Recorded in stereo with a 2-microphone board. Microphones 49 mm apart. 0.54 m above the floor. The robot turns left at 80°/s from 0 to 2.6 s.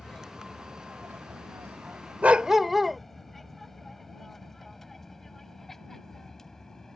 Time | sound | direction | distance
0.0 | an aircraft | 25° left (ahead or behind) | ?
2.2 | a dog barking | 145° right | ?